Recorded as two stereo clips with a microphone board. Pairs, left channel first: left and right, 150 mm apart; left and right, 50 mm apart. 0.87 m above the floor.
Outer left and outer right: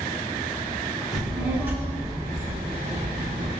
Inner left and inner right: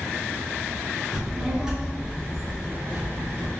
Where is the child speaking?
Centre (ahead or behind), 1.3 m; by 3.5 s 50° right (ahead or behind), 1.5 m.